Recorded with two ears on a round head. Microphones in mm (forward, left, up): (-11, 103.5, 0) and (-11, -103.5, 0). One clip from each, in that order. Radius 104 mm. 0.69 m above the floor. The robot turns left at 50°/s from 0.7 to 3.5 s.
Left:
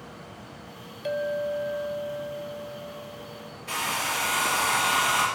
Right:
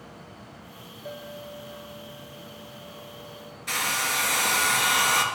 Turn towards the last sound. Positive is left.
turn(degrees=-75)  # may be behind; listen again after turning